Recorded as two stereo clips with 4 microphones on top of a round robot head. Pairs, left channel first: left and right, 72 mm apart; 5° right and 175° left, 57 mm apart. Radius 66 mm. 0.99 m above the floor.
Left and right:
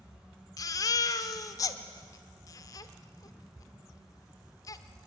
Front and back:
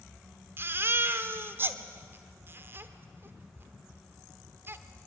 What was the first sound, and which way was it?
A baby crying, 125° left.